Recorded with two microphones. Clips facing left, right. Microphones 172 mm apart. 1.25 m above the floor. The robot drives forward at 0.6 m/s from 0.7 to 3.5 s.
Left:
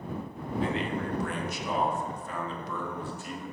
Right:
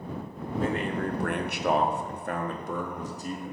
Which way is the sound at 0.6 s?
45° right (ahead or behind).